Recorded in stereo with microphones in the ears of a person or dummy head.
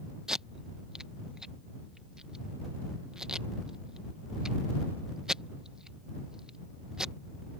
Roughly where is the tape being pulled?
Centre.